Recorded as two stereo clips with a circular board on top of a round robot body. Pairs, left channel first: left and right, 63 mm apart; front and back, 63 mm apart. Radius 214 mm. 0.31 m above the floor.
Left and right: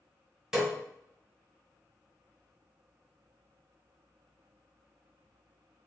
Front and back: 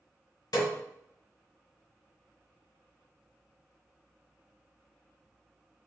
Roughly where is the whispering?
No whispering in this recording.